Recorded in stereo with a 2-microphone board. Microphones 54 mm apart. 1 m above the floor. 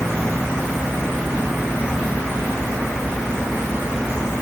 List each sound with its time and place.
Only background noise.